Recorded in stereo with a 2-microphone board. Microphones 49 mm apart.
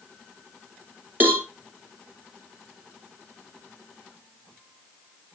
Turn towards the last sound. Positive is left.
turn(degrees=-40)  # may be behind; listen again after turning